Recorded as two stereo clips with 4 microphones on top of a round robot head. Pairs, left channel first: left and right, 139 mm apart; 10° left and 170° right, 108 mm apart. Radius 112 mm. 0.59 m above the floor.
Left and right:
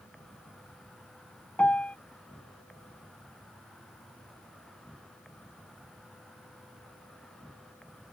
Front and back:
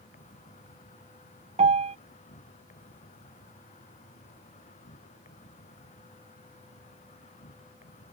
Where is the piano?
175° left.